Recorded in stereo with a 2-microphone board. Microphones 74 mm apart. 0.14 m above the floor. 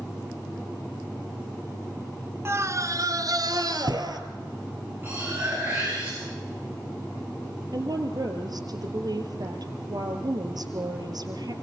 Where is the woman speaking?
65° right (ahead or behind), 3 m.